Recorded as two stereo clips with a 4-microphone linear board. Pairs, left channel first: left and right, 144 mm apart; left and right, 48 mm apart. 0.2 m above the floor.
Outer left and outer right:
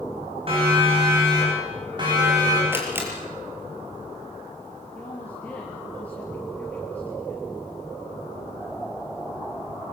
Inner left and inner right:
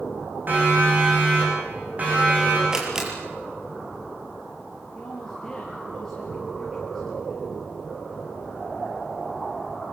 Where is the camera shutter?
15° right (ahead or behind), 5.5 m.